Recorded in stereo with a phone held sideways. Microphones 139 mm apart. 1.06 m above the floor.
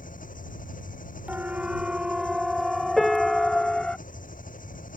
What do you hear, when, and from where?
0.0 s an engine running: 75° left (ahead or behind)
1.3 s a siren: 10° right (ahead or behind); by 4.0 s 5° left (ahead or behind)
3.0 s a piano: centre (ahead or behind)